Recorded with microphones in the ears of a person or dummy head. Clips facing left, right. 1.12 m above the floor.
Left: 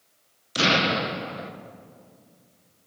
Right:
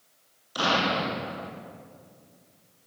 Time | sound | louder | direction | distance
0.6 | an explosion | left 3 dB | 25° left (ahead or behind) | 0.7 m